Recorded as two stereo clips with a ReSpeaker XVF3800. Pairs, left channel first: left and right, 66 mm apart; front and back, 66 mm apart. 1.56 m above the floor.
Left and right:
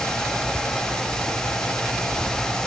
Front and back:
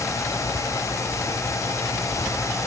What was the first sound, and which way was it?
Only background noise.